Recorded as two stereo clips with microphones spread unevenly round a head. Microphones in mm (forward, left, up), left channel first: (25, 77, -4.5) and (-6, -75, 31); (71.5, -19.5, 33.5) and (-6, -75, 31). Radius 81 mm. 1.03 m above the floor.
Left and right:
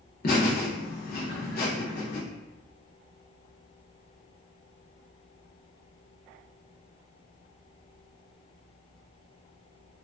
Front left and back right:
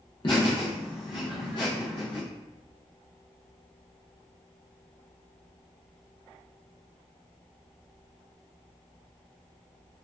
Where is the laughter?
80° left, 0.7 m.